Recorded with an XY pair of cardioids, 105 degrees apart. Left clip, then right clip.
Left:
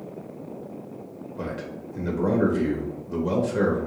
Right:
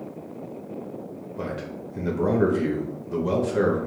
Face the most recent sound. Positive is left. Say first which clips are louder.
# right 1 dB
turn(degrees=-15)